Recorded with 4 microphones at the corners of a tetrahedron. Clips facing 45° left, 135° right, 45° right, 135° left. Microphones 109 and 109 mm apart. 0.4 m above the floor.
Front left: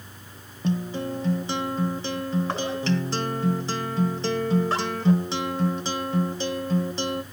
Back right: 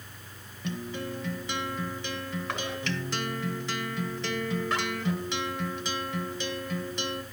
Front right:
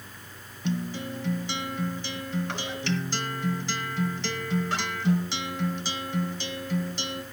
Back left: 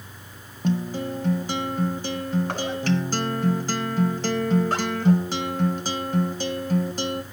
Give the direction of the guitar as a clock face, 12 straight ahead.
9 o'clock.